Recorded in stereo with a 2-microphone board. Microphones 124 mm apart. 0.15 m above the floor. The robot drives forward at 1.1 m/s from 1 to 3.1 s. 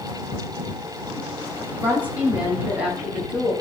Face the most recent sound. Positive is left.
turn(degrees=-10)  # may be behind; listen again after turning